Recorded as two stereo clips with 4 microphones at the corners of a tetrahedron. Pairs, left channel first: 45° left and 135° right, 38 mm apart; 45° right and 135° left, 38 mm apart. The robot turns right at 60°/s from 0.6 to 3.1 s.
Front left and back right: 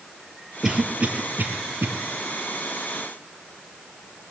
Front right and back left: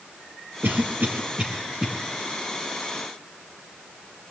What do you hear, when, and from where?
0.6 s a cough: 145° left, 5 m; by 1.9 s 140° right, 5 m